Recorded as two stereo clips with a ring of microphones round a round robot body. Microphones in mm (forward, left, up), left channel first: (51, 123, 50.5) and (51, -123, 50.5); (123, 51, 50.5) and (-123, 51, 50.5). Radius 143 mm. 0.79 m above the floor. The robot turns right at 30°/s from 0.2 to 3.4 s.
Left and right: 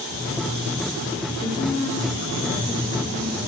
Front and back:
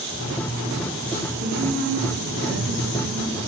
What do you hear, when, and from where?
1.4 s a woman speaking: 150° left, 1.0 m; by 3.5 s 150° right, 1.0 m